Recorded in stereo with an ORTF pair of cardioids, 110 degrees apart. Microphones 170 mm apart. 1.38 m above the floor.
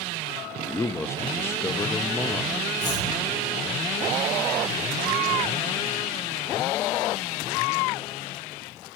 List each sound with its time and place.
0.7 s a man speaking: 15° left, 0.5 m
2.8 s chopping: 55° left, 6.5 m